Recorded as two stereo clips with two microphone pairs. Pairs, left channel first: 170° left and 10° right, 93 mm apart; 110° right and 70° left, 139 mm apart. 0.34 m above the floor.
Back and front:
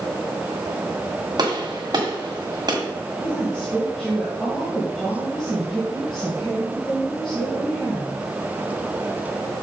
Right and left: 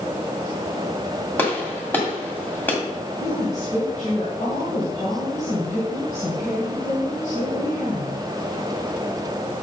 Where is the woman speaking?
110° right, 2.5 m.